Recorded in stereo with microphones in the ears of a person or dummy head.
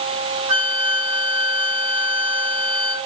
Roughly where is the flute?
Right.